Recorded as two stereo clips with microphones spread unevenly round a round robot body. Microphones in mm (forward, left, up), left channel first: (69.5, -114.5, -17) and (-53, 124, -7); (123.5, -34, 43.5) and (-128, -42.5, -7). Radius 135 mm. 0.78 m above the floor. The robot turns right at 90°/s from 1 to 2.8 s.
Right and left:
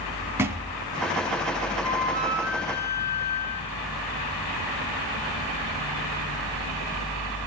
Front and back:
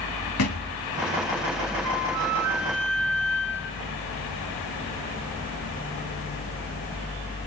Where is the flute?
140° left, 1.8 m; by 3.8 s 130° right, 1.8 m.